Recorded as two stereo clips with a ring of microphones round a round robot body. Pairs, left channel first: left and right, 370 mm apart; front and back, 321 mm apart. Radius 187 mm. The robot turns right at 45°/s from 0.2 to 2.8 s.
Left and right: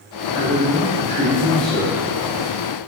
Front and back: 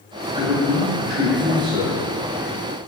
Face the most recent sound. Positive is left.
turn(degrees=-135)